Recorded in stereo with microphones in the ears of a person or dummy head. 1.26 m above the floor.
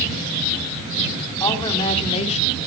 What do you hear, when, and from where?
1.4 s a woman speaking: 20° left (ahead or behind), 4 m; by 2.6 s 45° left (ahead or behind), 2.5 m